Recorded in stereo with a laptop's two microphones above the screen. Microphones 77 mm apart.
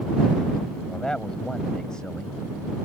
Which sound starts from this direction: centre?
A man speaking, at 0.9 s.